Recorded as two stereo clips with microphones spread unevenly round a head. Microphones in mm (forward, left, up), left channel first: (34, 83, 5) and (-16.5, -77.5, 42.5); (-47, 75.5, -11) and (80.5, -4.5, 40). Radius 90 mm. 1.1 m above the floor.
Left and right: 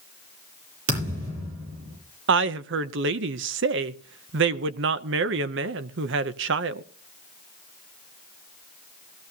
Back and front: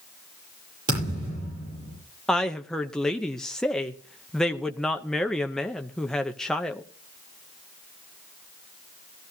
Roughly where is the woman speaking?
Behind right.